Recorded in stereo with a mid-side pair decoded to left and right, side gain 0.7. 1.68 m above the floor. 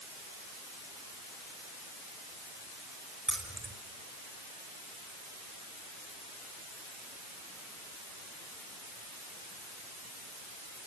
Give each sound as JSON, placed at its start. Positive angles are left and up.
{"t": 3.3, "sound": "keys jangling", "azimuth_deg": -10, "distance_m": 4.5}